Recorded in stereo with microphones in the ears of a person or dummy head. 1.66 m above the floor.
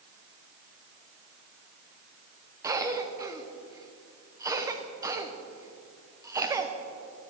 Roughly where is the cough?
Centre.